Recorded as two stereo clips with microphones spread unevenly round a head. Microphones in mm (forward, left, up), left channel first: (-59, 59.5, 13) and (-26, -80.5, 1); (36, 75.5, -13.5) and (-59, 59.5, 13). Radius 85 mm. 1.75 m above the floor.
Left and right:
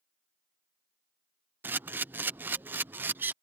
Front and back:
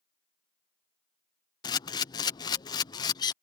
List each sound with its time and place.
1.6 s a camera shutter: 5° right